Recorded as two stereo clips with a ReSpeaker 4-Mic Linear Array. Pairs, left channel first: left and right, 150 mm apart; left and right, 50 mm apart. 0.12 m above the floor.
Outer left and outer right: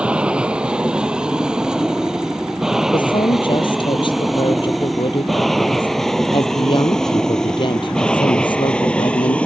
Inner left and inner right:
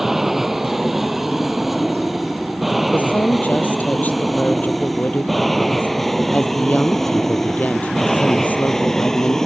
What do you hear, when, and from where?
0.0 s an aircraft: 5° right (ahead or behind); by 9.5 s 10° left (ahead or behind)
2.9 s a woman speaking: 30° left (ahead or behind)